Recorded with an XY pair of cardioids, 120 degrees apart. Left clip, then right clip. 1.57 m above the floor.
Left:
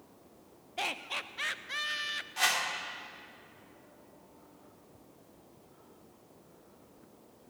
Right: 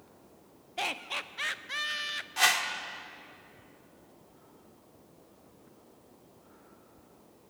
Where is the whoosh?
20° right, 1.4 m.